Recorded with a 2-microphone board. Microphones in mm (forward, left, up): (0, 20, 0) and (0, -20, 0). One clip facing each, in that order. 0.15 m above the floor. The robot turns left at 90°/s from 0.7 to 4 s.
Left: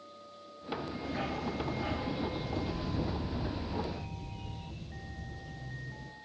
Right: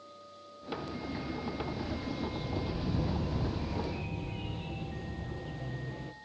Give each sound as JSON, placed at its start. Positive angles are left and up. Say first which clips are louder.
{"t": 1.0, "sound": "a dog barking", "louder": "left 4 dB", "azimuth_deg": 125, "distance_m": 1.4}